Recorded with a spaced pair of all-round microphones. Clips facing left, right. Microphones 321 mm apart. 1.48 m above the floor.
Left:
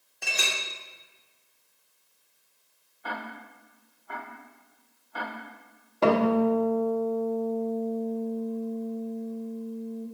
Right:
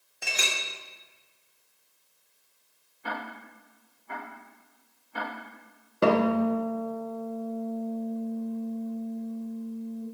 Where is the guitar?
20° right (ahead or behind), 1.1 m.